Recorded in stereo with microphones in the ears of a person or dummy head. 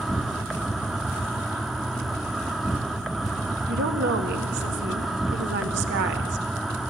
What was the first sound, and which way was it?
An insect, centre (ahead or behind).